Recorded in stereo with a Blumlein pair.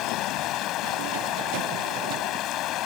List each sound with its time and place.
0.0 s running water: 35° left